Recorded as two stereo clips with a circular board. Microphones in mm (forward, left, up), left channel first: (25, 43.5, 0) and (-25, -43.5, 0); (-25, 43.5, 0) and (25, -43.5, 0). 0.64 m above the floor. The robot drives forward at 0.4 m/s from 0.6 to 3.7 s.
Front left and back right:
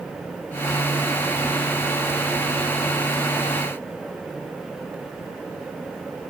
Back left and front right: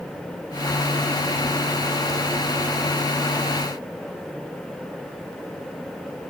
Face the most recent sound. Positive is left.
No sound to turn to.